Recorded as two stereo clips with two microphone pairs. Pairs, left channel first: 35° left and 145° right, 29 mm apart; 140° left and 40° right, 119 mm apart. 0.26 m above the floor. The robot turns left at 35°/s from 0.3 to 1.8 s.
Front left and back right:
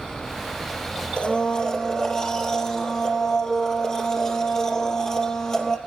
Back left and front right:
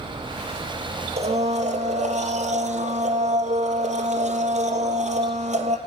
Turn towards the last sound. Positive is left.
turn(degrees=-30)